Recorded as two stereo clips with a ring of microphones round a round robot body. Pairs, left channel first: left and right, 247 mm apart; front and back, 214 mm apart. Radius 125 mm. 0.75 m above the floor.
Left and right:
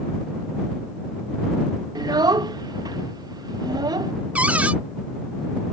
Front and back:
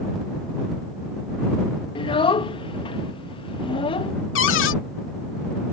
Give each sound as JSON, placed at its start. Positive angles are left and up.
{"t": 1.9, "sound": "a child speaking", "azimuth_deg": -35}
{"t": 4.3, "sound": "a cupboard door", "azimuth_deg": -5}